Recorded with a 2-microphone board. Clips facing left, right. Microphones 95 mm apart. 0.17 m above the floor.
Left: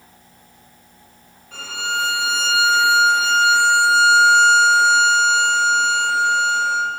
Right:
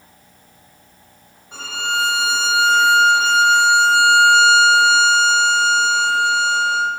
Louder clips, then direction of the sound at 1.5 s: Right 2 dB; 25° right (ahead or behind).